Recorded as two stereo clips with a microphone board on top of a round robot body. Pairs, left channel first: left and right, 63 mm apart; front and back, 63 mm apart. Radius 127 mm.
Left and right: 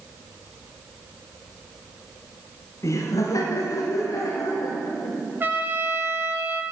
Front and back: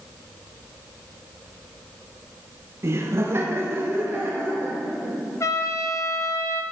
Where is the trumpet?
35° right, 1.4 m.